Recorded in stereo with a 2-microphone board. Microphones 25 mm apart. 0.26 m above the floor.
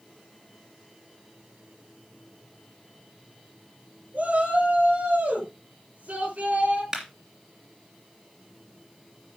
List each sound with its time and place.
4.1 s a shout: 65° right (ahead or behind), 5 m; by 6.8 s 75° right (ahead or behind), 5.5 m
6.9 s a clap: 25° right (ahead or behind), 3 m